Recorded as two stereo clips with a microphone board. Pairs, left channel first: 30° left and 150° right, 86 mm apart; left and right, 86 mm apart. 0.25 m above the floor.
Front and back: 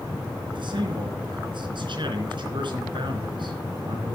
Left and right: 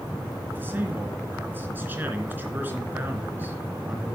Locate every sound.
0.5 s a man speaking: 155° right, 3 m